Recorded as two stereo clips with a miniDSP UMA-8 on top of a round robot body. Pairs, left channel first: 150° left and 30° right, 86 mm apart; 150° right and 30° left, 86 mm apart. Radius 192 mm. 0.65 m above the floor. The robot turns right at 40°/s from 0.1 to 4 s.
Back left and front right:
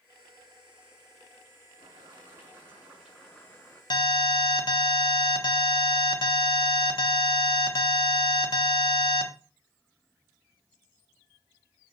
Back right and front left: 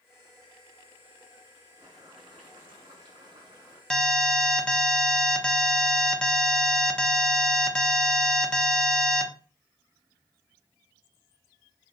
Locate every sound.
1.8 s boiling: 5° right, 5 m; by 3.8 s 75° left, 5 m
3.9 s an alarm: 125° left, 1.4 m; by 9.3 s 130° left, 1.4 m